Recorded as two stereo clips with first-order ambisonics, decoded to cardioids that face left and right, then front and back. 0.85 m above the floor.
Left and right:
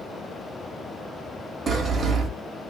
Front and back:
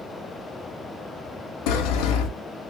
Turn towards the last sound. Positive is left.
turn(degrees=-20)